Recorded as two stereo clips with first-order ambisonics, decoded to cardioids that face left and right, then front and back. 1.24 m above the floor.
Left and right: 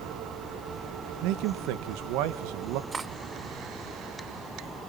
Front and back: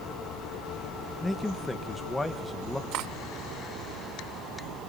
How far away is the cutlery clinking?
About 0.8 m.